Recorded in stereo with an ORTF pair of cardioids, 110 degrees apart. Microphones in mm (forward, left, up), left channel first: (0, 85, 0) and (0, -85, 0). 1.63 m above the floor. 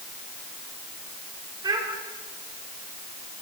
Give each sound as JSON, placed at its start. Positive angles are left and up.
{"t": 1.6, "sound": "a child speaking", "azimuth_deg": -25, "distance_m": 5.0}